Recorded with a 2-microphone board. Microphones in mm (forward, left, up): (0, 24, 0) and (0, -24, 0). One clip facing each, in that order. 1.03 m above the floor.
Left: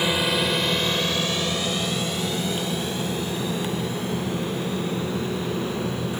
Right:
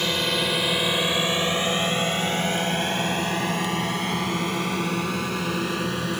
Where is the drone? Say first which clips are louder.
Left 2 dB; 10° left (ahead or behind); by 6.2 s 65° right (ahead or behind).